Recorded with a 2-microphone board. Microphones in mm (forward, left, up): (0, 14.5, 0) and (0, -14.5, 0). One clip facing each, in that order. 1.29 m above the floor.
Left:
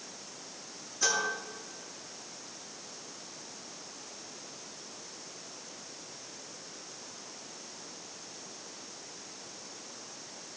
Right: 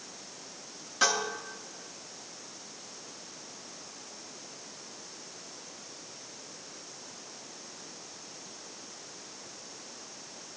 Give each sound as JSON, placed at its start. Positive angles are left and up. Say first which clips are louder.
{"t": 1.0, "sound": "dishes clattering", "louder": "right 2 dB", "side_deg": -75, "distance_m": 8.0}